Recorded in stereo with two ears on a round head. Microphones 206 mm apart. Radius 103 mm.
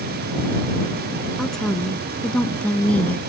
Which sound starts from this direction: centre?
A woman speaking, at 1.4 s.